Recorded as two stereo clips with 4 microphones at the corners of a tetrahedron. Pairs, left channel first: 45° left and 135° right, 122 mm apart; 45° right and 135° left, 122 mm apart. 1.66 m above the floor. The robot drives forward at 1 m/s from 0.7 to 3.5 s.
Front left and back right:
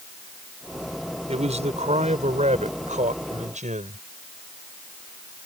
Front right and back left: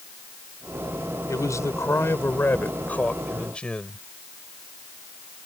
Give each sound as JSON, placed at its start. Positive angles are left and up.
{"t": 1.3, "sound": "a man speaking", "azimuth_deg": -110}